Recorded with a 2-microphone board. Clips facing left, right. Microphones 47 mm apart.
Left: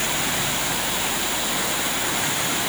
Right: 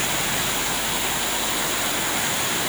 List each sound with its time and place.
Only background noise.